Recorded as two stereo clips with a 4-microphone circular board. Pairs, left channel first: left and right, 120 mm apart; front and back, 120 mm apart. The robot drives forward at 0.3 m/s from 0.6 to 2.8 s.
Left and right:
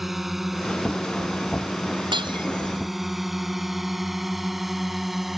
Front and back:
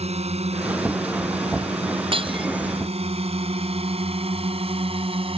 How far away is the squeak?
No squeak in this recording.